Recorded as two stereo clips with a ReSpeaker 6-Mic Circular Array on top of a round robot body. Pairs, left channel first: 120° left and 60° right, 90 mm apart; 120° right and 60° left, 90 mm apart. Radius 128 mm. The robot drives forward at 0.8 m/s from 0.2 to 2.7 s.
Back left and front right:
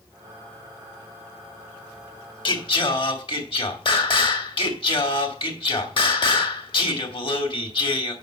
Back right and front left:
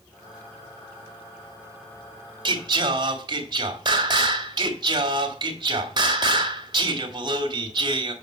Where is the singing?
90° left, 2 m; by 8.1 s 95° left, 2 m.